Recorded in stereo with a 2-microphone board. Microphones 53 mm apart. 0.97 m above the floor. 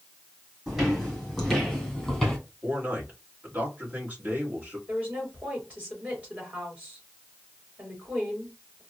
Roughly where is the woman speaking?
Right.